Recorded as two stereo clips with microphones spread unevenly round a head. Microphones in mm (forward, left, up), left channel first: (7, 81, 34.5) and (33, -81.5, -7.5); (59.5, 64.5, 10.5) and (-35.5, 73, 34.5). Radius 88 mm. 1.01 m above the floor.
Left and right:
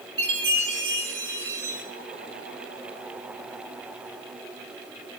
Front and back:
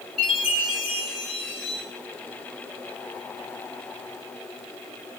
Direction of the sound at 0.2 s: 90° right.